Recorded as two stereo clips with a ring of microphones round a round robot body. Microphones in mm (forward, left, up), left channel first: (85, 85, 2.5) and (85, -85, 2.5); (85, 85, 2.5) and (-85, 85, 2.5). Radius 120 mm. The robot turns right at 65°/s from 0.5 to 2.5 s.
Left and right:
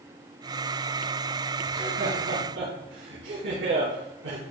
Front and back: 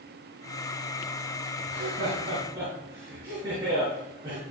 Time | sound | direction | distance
1.7 | laughter | 165° right | 4 m